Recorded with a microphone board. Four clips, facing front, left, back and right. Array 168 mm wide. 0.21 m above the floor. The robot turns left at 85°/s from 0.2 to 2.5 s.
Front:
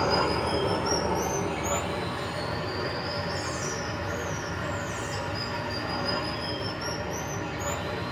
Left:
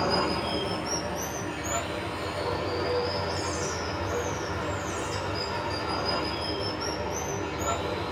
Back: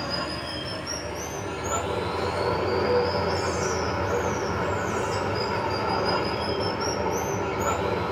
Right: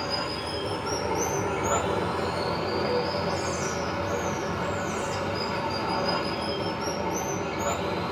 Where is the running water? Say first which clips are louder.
Left 4 dB, front 6 dB; 40° left, 1.1 m; by 8.1 s 155° right, 1.1 m.